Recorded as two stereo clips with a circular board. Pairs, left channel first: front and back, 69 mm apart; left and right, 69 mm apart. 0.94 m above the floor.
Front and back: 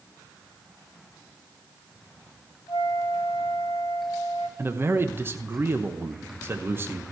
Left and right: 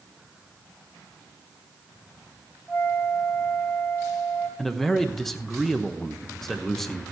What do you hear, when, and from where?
2.7 s a flute: 25° left, 2.5 m
4.6 s a man speaking: 170° left, 0.8 m